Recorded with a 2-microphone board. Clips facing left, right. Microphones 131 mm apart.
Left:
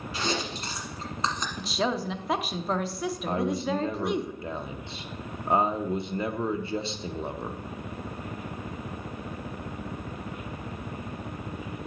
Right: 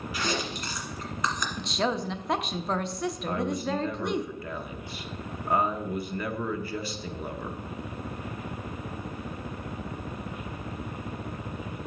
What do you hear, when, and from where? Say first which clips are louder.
0.1 s chewing: left 1 dB; 25° left (ahead or behind), 1.5 m
1.6 s a woman speaking: even; 5° left (ahead or behind), 0.6 m
3.3 s a man speaking: left 3 dB; 25° left (ahead or behind), 0.6 m